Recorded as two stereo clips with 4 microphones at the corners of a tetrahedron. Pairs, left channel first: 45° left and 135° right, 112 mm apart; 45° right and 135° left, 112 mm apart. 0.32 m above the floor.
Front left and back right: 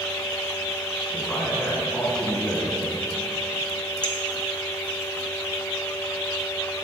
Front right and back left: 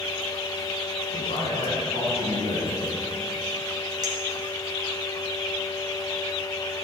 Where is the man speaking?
35° right, 3 m.